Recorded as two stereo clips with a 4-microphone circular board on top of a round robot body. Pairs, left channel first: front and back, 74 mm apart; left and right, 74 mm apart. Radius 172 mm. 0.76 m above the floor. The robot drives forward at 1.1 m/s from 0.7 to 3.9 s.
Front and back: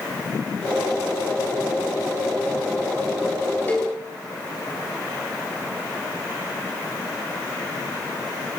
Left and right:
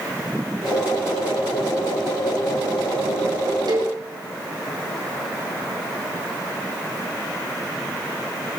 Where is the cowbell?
65° right, 5 m; by 3.9 s 70° right, 5 m.